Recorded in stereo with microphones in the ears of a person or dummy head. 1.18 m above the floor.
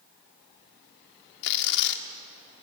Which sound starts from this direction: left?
Tearing paper, at 1.4 s.